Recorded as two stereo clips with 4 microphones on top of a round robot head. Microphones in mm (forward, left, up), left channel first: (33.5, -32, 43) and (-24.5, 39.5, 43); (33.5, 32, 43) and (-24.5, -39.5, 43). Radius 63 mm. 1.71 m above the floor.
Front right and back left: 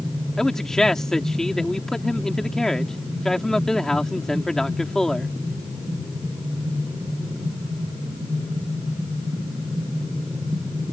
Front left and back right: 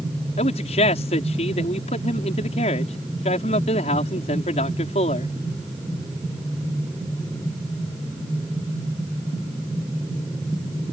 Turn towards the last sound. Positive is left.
turn(degrees=35)